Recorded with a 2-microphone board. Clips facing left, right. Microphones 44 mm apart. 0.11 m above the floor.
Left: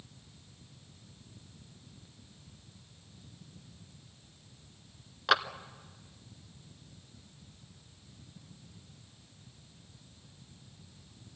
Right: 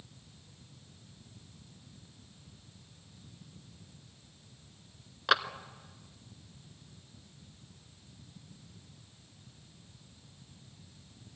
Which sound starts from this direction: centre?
A clap, at 5.3 s.